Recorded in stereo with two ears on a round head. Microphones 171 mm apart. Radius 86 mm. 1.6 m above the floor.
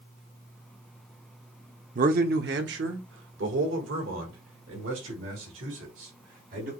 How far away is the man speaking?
About 0.6 m.